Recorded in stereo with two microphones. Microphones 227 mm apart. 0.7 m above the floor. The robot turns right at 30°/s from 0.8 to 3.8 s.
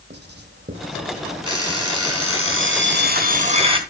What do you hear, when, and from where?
0.1 s writing: 45° right (ahead or behind), 2.5 m; by 1.5 s 25° right (ahead or behind), 2.5 m
1.4 s an alarm clock: 90° right, 3.5 m; by 3.8 s 20° right, 3.5 m